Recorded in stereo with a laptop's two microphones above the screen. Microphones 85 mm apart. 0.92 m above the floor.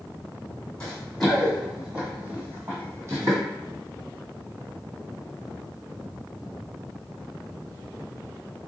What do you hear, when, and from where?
0.8 s running footsteps: 10° left (ahead or behind), 1.6 m; by 3.4 s 45° right (ahead or behind), 1.6 m